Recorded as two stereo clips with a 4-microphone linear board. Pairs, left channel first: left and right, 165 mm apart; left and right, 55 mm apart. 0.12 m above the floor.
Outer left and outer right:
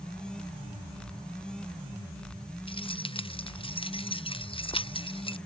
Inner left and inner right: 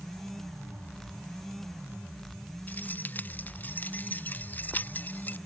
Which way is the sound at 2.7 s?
35° left (ahead or behind).